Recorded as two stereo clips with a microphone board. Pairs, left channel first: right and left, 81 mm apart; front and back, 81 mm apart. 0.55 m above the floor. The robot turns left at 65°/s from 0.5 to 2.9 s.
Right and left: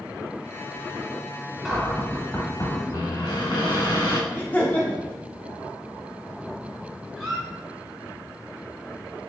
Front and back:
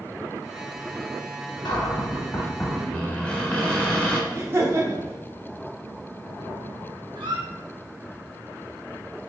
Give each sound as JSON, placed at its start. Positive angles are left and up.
{"t": 1.6, "sound": "a cupboard door", "azimuth_deg": 5, "distance_m": 0.8}
{"t": 4.3, "sound": "laughter", "azimuth_deg": -145, "distance_m": 0.8}
{"t": 7.2, "sound": "a squeak", "azimuth_deg": 170, "distance_m": 1.6}